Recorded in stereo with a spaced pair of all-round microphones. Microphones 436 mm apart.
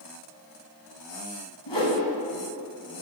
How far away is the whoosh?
About 1.6 m.